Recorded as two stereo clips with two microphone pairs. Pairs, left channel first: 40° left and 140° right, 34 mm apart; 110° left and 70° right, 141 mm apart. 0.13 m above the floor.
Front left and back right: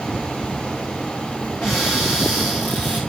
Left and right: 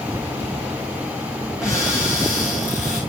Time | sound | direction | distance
1.6 | a cupboard door | 15° left | 8.5 m